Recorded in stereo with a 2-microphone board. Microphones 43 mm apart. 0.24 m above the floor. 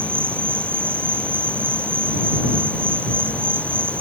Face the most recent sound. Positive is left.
turn(degrees=-55)  # may be behind; listen again after turning